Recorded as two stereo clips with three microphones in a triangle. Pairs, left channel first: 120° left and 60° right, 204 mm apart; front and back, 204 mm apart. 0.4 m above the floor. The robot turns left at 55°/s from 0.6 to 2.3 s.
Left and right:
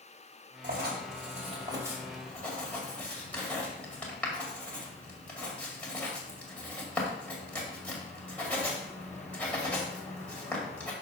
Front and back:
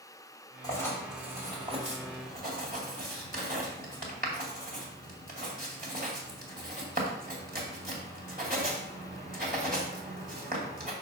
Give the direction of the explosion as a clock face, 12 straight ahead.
No explosion in this recording.